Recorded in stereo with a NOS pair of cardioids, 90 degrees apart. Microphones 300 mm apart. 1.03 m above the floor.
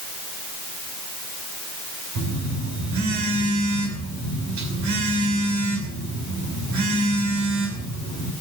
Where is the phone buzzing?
70° right, 5.5 m.